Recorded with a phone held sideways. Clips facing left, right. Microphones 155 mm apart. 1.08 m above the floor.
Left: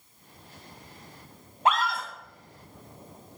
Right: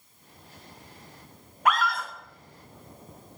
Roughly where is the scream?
Left.